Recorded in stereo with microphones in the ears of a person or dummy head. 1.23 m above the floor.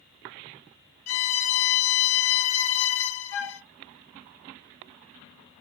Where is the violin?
35° left (ahead or behind), 0.6 m.